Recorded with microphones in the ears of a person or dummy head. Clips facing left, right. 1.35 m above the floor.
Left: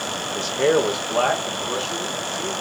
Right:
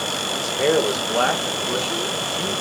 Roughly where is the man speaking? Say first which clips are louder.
Left 1 dB; centre.